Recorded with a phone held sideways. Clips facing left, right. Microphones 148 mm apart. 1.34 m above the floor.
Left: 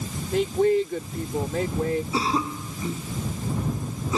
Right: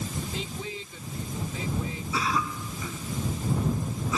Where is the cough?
30° left (ahead or behind).